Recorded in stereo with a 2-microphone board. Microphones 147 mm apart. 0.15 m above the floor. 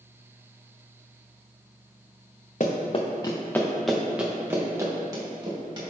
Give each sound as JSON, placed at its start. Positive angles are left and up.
{"t": 2.6, "sound": "running footsteps", "side_deg": 55, "distance_m": 0.8}